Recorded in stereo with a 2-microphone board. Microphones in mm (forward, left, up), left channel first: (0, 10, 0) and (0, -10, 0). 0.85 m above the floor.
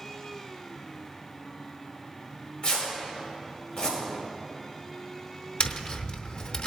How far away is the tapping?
About 0.8 m.